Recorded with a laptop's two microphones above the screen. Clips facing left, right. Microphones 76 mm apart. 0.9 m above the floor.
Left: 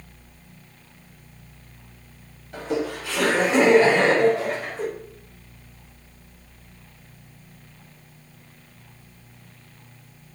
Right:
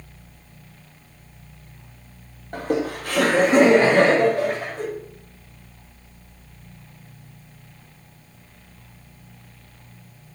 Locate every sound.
2.5 s laughter: 50° right (ahead or behind), 3 m; by 4.8 s 55° right (ahead or behind), 5 m